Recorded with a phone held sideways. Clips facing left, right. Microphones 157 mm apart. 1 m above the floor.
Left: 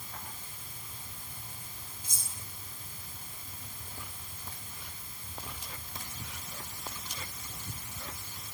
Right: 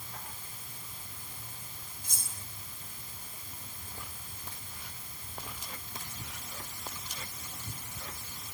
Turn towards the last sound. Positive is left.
turn(degrees=-55)  # may be behind; listen again after turning